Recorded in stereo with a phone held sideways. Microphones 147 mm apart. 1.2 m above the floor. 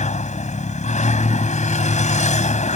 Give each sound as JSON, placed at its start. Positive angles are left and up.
{"t": 0.0, "sound": "a vehicle", "side_deg": 55}